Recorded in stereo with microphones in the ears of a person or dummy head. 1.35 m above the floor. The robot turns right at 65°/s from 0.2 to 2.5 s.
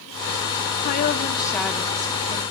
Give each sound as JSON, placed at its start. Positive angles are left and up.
{"t": 0.8, "sound": "a woman speaking", "azimuth_deg": 120, "distance_m": 0.9}